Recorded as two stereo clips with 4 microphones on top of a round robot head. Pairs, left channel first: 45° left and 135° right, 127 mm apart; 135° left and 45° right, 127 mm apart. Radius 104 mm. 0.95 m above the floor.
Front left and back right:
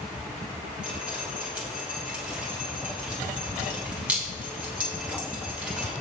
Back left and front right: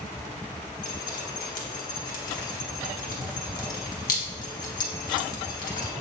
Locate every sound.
0.8 s dripping: 145° left, 1.4 m